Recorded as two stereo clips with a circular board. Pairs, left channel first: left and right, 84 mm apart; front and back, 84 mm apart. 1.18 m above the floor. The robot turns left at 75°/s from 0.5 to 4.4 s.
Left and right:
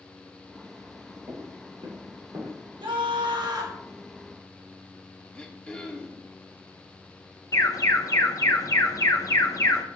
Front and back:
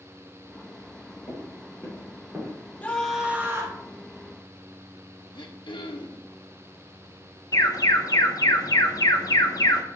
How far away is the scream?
About 2 m.